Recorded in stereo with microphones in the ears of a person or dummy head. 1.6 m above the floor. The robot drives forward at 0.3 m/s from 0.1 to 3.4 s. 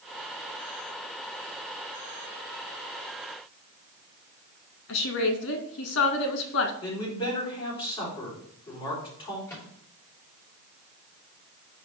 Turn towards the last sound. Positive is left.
turn(degrees=5)  # may be behind; listen again after turning